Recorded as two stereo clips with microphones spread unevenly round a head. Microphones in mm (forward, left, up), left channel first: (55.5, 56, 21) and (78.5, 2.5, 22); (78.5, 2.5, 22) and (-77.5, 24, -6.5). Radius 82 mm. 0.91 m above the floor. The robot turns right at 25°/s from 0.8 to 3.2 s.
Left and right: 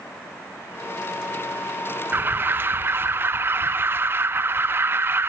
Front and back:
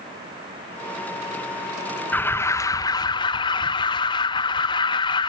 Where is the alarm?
95° right, 0.5 m; by 5.3 s 70° right, 0.5 m.